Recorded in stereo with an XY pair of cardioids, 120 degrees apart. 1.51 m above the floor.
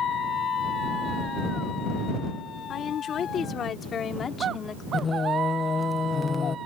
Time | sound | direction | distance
2.7 | a woman speaking | 50° left | ?
4.9 | singing | 30° left | ?